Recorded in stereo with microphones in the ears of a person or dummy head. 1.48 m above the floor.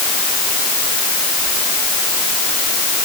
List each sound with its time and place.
Only background noise.